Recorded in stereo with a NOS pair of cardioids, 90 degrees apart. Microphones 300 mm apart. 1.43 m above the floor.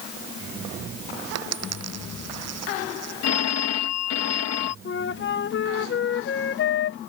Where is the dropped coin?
60° right.